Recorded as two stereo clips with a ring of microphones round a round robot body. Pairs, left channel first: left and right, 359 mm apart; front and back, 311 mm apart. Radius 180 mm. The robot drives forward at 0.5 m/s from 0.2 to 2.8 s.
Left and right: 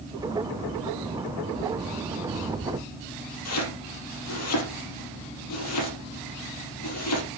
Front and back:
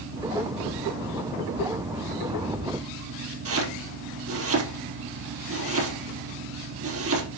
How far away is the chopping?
About 4.5 m.